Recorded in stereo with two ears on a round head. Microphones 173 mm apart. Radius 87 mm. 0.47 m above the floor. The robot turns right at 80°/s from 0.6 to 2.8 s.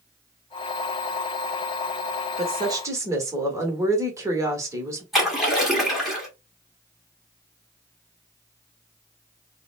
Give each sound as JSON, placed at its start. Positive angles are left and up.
{"t": 2.4, "sound": "a woman speaking", "azimuth_deg": -60, "distance_m": 1.0}
{"t": 5.1, "sound": "a splash", "side_deg": 0, "distance_m": 1.2}